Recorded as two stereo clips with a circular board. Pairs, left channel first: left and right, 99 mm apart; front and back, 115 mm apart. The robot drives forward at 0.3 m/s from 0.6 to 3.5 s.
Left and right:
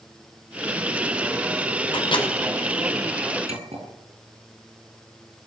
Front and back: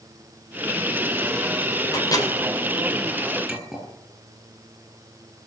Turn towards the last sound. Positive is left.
turn(degrees=-95)